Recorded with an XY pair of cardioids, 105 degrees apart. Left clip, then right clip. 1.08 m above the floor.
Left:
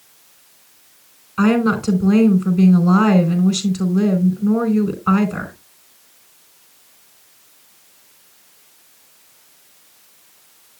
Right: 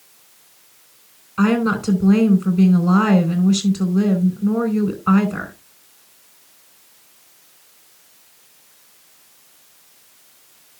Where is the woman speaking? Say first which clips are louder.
Left 2 dB; 10° left, 4.5 m.